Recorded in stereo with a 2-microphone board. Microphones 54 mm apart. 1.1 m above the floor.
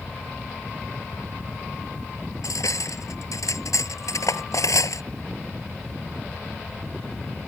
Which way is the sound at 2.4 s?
85° left.